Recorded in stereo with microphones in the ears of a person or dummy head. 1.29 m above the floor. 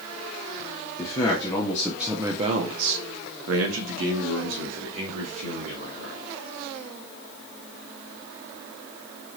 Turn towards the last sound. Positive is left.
turn(degrees=-65)  # may be behind; listen again after turning